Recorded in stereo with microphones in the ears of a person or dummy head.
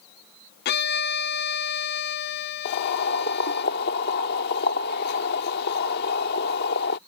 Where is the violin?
50° left (ahead or behind).